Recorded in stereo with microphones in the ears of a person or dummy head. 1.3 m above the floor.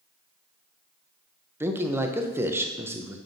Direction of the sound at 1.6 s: 15° right (ahead or behind).